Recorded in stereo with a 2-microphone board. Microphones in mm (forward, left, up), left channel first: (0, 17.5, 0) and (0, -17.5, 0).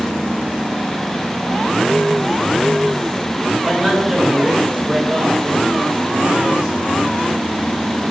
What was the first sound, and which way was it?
A man speaking, 20° right (ahead or behind).